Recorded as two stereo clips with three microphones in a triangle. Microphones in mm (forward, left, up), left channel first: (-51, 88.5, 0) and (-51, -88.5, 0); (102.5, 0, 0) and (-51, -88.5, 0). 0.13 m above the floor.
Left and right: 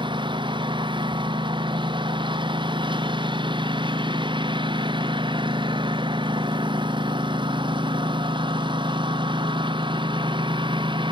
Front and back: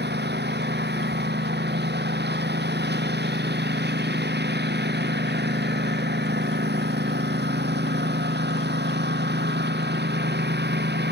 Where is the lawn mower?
150° right.